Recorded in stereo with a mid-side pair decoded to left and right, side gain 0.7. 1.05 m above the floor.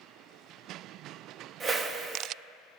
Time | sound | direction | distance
1.6 | a whoosh | 25° right | 1.6 m